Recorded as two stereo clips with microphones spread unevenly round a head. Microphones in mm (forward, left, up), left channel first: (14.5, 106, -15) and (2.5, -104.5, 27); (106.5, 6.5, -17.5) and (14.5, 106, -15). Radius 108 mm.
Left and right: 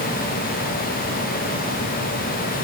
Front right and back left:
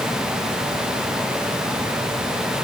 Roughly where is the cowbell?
I don't hear a cowbell.